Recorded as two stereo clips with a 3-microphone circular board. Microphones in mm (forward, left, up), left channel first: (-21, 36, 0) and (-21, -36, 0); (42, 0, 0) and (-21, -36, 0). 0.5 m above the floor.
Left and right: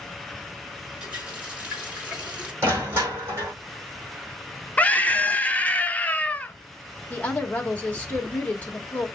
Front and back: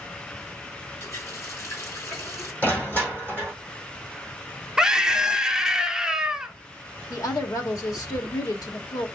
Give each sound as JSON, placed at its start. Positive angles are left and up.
{"t": 1.0, "sound": "a running tap", "azimuth_deg": -20, "distance_m": 2.5}
{"t": 2.6, "sound": "crushing", "azimuth_deg": -35, "distance_m": 3.5}
{"t": 4.8, "sound": "a scream", "azimuth_deg": 140, "distance_m": 0.7}
{"t": 7.1, "sound": "a woman speaking", "azimuth_deg": 25, "distance_m": 1.5}